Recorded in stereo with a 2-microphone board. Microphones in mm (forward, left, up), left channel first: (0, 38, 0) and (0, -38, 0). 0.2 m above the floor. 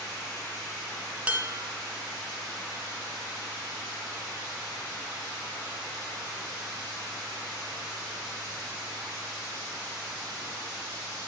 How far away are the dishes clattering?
About 0.7 m.